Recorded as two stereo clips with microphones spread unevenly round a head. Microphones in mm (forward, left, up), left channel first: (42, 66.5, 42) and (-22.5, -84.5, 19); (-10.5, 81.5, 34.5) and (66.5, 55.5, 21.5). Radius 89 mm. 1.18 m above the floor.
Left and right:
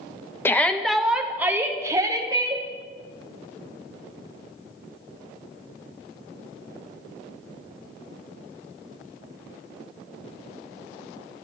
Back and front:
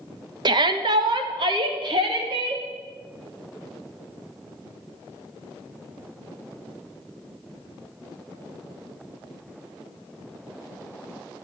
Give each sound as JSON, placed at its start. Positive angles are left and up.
{"t": 0.5, "sound": "a shout", "azimuth_deg": -10, "distance_m": 1.3}